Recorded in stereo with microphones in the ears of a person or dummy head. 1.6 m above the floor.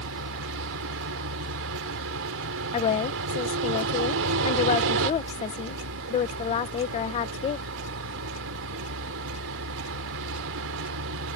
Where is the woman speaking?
30° left (ahead or behind).